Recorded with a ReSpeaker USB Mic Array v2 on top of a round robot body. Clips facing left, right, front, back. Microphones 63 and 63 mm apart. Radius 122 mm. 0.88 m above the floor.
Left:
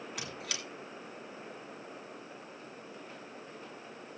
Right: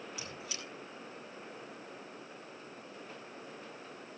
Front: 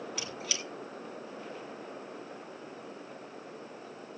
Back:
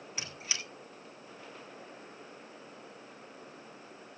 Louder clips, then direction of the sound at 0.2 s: Left 3 dB, front 3 dB; 120° left.